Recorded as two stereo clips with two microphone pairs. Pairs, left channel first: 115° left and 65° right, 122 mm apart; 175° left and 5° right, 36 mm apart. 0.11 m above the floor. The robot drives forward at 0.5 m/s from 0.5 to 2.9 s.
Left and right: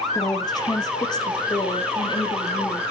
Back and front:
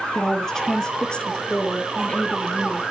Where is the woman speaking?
120° left, 1.7 m; by 2.8 s 155° left, 2.5 m.